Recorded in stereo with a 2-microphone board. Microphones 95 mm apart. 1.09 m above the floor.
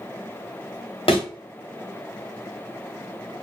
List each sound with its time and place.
1.1 s a thud: 75° left (ahead or behind), 1.6 m